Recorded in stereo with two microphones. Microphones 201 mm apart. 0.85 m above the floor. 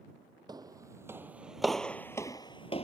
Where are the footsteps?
20° right (ahead or behind); by 2.8 s 30° left (ahead or behind).